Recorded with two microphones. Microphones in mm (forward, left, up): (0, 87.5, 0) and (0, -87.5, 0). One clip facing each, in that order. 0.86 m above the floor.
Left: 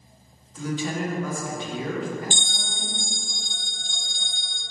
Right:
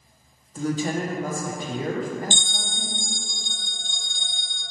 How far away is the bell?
About 0.6 m.